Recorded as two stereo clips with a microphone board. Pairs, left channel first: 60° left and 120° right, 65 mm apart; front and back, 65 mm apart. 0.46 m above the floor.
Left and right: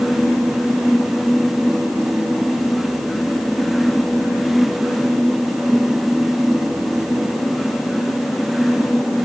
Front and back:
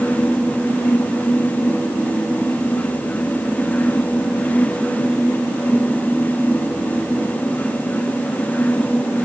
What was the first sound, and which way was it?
Only background noise.